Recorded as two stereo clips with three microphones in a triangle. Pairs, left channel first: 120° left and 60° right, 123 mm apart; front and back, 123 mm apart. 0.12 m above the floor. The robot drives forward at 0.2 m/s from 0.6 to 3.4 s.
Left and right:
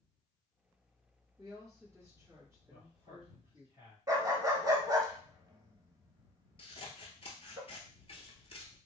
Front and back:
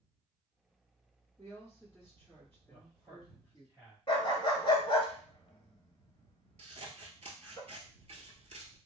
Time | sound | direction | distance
1.4 | a woman speaking | 35° right | 1.7 m
2.7 | a man speaking | 95° right | 1.8 m
4.1 | a dog barking | 15° right | 0.7 m
6.6 | scissors | 155° left | 0.6 m